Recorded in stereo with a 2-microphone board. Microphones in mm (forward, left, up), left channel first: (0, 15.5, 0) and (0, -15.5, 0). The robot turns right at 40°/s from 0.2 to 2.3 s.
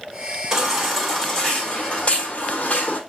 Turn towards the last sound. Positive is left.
turn(degrees=50)